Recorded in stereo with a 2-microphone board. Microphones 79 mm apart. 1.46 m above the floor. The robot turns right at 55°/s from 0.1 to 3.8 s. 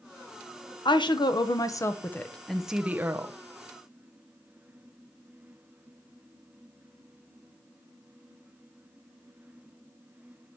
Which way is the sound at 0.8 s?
85° left.